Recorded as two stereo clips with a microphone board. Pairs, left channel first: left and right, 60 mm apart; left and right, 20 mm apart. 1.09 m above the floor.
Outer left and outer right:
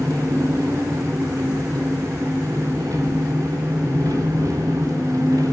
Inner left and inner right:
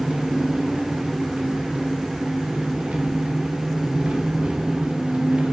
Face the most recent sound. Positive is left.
turn(degrees=-85)